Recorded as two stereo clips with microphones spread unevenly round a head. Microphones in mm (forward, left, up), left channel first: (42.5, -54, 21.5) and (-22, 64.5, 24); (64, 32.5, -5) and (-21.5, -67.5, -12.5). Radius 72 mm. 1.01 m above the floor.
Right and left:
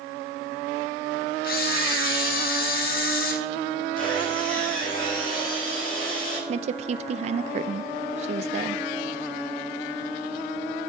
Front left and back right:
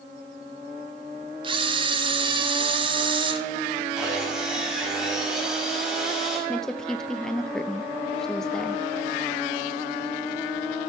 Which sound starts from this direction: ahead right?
Sawing, at 4.0 s.